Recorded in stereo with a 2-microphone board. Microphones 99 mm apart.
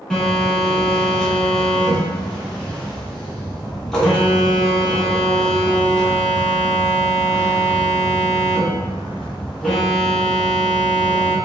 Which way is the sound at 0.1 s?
5° left (ahead or behind).